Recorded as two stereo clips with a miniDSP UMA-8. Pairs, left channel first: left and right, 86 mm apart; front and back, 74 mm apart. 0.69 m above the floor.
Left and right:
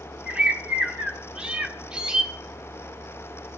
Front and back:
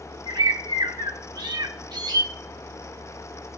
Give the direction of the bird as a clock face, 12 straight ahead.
6 o'clock.